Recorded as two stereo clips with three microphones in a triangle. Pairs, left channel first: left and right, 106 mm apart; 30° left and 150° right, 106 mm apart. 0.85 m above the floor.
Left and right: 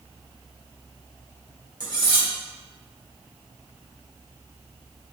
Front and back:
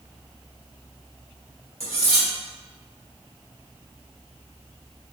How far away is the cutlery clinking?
About 1.3 m.